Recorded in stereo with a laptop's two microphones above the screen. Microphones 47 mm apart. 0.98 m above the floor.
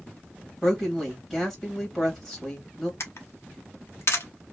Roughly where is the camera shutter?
Left.